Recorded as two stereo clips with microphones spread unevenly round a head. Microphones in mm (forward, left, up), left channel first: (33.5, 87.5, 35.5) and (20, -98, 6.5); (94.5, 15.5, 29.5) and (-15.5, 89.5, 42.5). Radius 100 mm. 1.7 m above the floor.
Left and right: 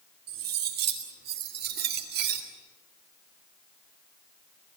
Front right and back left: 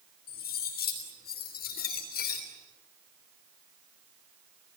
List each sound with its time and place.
0.3 s cutlery clinking: 60° right, 3 m